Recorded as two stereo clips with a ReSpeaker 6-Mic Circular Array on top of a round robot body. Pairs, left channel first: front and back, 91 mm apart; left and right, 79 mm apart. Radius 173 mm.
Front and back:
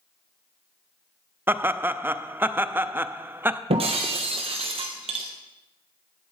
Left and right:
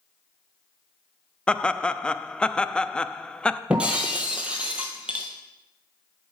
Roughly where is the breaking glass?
Behind.